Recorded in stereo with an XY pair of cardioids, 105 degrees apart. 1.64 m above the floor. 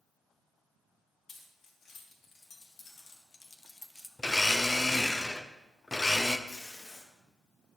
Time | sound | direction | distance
1.3 | keys jangling | 65° left | 3 m
4.2 | a blender | 15° left | 0.7 m
6.5 | tape being pulled | 30° left | 1.9 m